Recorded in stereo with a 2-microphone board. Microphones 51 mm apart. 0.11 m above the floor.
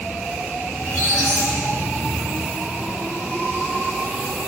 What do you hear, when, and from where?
0.8 s a squeak: 80° left, 7 m